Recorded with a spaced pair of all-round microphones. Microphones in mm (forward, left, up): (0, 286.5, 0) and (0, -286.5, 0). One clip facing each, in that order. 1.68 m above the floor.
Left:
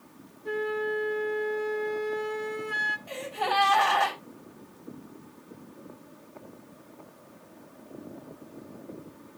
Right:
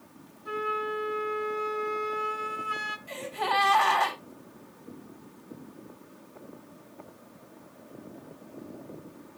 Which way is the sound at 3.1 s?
75° left (ahead or behind).